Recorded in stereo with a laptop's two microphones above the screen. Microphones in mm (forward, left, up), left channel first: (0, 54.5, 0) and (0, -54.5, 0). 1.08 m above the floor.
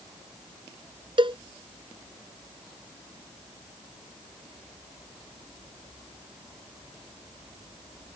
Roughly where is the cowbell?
Right.